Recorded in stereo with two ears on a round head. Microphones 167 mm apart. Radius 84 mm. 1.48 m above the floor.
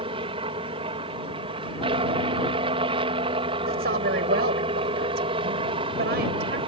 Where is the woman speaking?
55° right (ahead or behind).